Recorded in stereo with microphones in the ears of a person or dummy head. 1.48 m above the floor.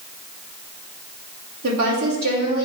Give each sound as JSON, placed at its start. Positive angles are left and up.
{"t": 1.6, "sound": "a woman speaking", "side_deg": -85, "distance_m": 3.0}